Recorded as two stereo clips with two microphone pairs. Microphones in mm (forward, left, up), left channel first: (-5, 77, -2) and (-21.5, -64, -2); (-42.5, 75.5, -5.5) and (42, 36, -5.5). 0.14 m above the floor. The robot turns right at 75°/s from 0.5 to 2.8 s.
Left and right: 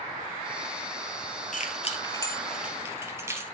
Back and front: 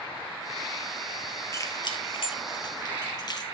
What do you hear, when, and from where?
1.5 s keys jangling: 95° left, 2.5 m; by 3.4 s 165° right, 2.5 m